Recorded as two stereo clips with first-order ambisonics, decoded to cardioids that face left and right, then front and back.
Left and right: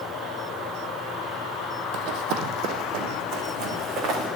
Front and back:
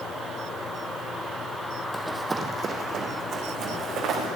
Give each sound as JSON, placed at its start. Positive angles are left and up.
{"t": 1.9, "sound": "running footsteps", "azimuth_deg": -85, "distance_m": 1.1}